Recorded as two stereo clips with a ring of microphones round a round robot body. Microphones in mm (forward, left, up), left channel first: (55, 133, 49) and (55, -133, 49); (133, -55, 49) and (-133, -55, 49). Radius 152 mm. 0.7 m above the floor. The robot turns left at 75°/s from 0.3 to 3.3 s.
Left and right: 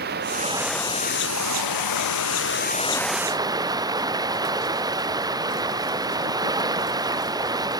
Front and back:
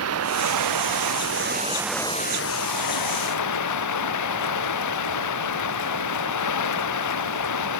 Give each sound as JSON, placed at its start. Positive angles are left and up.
{"t": 0.0, "sound": "running water", "azimuth_deg": -150}